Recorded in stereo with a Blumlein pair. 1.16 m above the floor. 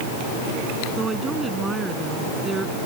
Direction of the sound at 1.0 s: 10° right.